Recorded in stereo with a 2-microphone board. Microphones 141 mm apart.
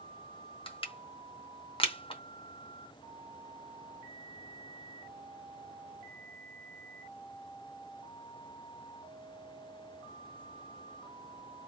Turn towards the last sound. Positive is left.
turn(degrees=40)  # may be behind; listen again after turning